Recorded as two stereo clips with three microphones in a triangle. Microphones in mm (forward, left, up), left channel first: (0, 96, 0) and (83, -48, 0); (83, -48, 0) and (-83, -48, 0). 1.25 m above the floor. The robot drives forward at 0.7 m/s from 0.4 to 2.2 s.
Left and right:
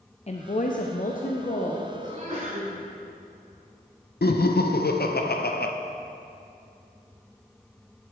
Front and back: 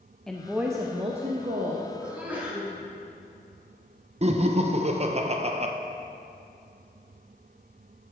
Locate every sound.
0.3 s a woman speaking: 85° left, 0.6 m; by 1.8 s 155° left, 1.1 m
2.0 s a sneeze: 100° right, 3.5 m
4.2 s laughter: 135° left, 0.5 m